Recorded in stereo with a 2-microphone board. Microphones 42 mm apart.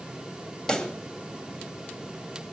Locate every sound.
0.7 s a pop: 15° left (ahead or behind), 1.5 m